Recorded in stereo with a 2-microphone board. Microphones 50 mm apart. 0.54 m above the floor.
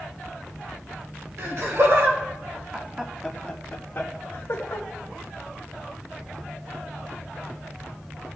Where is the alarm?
No alarm in this recording.